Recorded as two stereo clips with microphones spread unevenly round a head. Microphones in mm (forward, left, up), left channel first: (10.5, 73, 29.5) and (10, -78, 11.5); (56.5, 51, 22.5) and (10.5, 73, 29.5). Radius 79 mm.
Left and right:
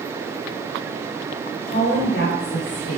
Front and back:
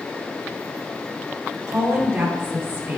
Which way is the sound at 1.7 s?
120° left.